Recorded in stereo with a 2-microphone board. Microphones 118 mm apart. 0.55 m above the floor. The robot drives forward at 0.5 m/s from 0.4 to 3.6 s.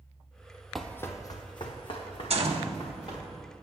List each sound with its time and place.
0.8 s running footsteps: centre (ahead or behind), 0.6 m; by 3.2 s 55° left (ahead or behind), 3 m
2.3 s a gunshot: 60° right (ahead or behind), 0.9 m; by 2.7 s 65° right (ahead or behind), 0.8 m